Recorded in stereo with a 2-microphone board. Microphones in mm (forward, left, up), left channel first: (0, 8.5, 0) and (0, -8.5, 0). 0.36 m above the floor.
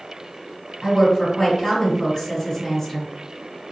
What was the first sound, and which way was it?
A woman speaking, 30° left (ahead or behind).